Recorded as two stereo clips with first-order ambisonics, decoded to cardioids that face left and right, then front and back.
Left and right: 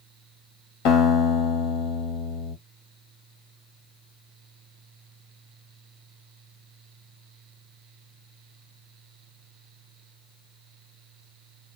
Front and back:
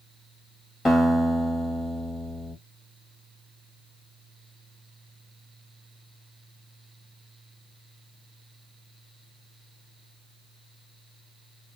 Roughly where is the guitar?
Left.